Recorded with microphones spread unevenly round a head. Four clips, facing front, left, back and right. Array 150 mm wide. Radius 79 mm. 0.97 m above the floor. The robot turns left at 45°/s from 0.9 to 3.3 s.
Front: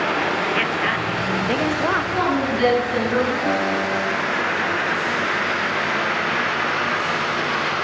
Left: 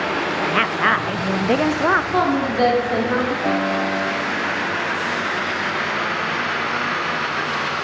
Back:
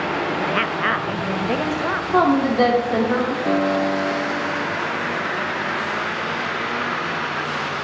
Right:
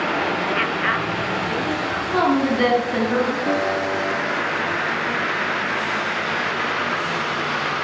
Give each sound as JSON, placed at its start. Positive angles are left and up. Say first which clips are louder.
{"t": 0.4, "sound": "a woman speaking", "louder": "left 3 dB, even", "azimuth_deg": 110, "distance_m": 0.6}
{"t": 2.1, "sound": "a woman speaking", "louder": "even, back 4 dB", "azimuth_deg": 180, "distance_m": 3.0}
{"t": 3.4, "sound": "a guitar", "louder": "left 1 dB, back 2 dB", "azimuth_deg": 60, "distance_m": 5.5}